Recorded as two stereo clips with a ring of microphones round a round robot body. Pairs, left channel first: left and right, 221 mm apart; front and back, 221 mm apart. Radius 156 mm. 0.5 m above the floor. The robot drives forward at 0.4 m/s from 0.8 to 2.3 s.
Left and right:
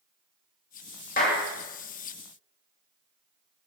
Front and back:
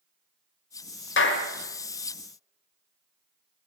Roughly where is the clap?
Ahead left.